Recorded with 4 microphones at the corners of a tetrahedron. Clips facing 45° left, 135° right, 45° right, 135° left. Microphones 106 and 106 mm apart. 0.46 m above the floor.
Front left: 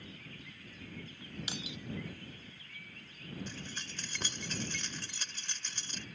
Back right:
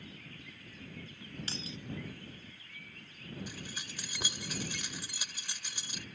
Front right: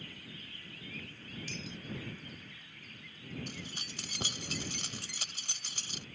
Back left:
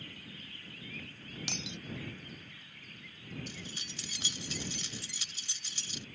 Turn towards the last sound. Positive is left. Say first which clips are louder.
# even, front right 1 dB
turn(degrees=-55)